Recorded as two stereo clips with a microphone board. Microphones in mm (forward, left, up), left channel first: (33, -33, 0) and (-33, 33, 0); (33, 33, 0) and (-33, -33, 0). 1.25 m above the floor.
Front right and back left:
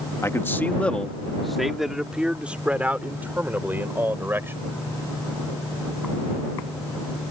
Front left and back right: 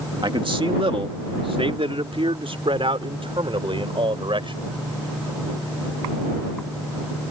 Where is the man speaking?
105° right; by 4.6 s 160° right.